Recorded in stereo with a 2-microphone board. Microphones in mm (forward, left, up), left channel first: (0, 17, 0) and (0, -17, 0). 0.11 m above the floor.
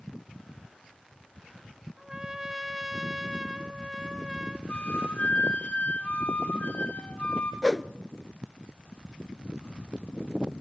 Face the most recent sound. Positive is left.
turn(degrees=5)  # may be behind; listen again after turning